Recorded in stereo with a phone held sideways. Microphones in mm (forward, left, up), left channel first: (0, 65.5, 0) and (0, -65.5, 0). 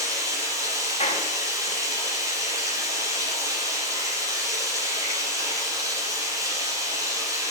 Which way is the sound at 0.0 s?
25° right (ahead or behind).